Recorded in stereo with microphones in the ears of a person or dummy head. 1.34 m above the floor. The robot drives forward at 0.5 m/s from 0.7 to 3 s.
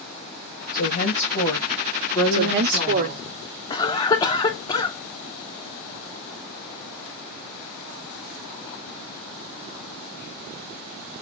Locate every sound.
0.7 s a woman speaking: 45° left (ahead or behind), 1.3 m; by 3.3 s 25° left (ahead or behind), 2 m
2.3 s a woman speaking: 60° right (ahead or behind), 0.7 m; by 3.6 s 45° right (ahead or behind), 0.9 m
3.7 s a cough: 25° left (ahead or behind), 0.7 m